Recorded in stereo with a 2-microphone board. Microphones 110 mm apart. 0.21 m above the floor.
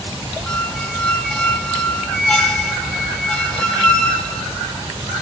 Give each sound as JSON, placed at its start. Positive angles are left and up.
{"t": 0.5, "sound": "a squeak", "side_deg": 10, "distance_m": 0.7}